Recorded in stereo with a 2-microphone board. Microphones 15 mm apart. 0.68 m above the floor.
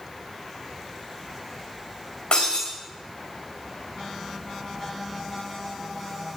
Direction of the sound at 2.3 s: 70° left (ahead or behind).